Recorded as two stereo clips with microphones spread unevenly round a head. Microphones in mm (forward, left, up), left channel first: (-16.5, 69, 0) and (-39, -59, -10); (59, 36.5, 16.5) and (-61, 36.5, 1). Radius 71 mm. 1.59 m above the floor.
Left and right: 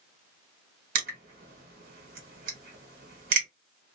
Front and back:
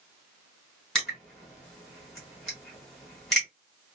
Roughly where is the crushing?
Right.